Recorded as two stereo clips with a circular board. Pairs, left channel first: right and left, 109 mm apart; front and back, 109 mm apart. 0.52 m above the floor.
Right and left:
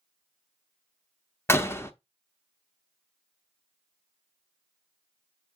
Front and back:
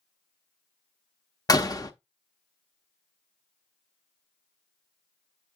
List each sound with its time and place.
1.5 s a door slam: 35° right, 0.7 m